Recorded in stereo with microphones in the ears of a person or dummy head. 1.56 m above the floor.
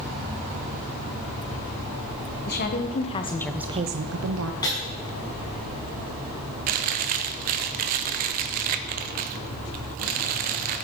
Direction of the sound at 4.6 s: 20° left (ahead or behind).